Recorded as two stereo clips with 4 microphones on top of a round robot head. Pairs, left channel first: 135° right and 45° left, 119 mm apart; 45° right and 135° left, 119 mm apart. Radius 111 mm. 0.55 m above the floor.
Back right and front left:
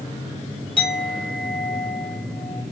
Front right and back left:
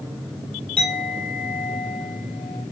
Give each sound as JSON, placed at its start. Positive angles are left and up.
{"t": 0.8, "sound": "a clink", "azimuth_deg": -90, "distance_m": 2.5}